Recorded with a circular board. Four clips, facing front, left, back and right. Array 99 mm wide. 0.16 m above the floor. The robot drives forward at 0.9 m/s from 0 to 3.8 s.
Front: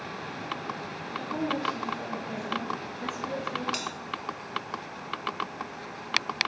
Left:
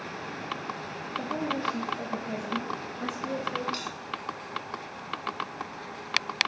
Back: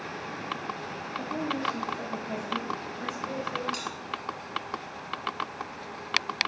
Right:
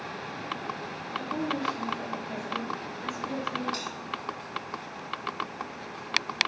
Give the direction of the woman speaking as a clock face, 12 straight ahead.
9 o'clock.